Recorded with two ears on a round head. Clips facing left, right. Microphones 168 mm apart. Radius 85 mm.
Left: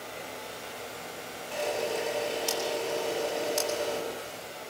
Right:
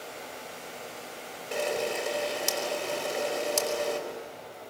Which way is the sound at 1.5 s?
70° right (ahead or behind).